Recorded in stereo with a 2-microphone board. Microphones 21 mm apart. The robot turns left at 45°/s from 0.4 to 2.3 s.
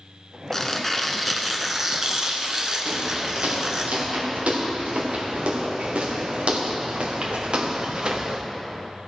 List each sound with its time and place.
0.5 s tearing paper: 30° left, 1.0 m; by 3.9 s 50° right, 1.0 m
2.9 s footsteps: 85° right, 4 m; by 8.4 s 35° right (ahead or behind), 1.1 m